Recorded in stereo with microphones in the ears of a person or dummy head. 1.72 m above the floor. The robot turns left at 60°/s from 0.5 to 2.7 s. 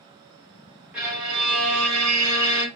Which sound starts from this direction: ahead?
A violin, at 0.9 s.